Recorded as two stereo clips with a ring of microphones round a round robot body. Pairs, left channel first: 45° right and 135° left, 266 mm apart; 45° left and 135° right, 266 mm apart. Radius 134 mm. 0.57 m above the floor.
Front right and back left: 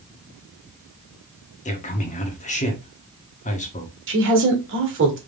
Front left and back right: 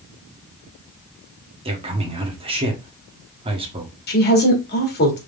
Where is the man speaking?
80° right, 1.3 m.